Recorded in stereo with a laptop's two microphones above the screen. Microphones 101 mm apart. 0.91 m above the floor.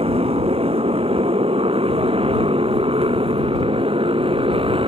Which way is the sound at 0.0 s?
80° right.